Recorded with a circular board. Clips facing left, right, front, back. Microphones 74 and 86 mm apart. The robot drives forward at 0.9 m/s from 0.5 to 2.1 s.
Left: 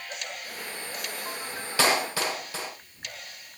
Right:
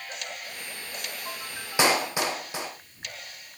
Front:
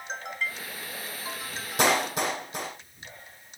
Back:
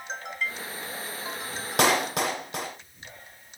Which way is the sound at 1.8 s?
160° right.